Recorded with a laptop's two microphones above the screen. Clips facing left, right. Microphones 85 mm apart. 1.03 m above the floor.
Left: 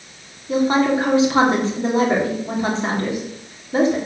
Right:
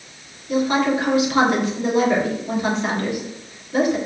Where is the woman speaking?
30° left (ahead or behind), 2.0 m.